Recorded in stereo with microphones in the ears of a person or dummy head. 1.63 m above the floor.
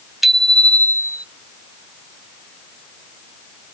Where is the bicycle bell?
5° right (ahead or behind); by 1.2 s 20° left (ahead or behind).